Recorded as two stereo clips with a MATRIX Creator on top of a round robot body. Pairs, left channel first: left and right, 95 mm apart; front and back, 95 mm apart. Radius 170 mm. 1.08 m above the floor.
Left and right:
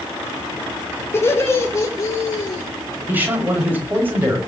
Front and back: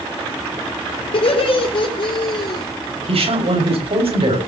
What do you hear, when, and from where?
1.1 s laughter: 25° left, 3.5 m; by 2.7 s 45° left, 2.5 m
3.1 s a man speaking: 160° right, 7 m